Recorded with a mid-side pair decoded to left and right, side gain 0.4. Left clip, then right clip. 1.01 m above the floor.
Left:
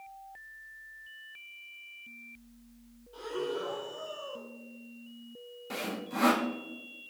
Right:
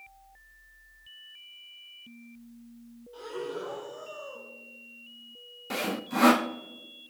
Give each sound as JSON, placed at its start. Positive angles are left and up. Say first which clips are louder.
{"t": 3.1, "sound": "breathing", "louder": "left 1 dB", "azimuth_deg": 0, "distance_m": 3.0}
{"t": 5.7, "sound": "sawing", "louder": "right 5 dB", "azimuth_deg": -45, "distance_m": 0.6}